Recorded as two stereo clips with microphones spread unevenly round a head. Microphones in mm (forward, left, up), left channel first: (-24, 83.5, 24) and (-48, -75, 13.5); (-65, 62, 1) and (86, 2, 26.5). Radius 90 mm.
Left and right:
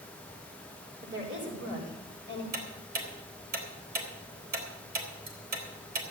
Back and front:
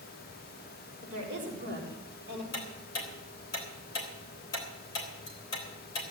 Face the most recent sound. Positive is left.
turn(degrees=-130)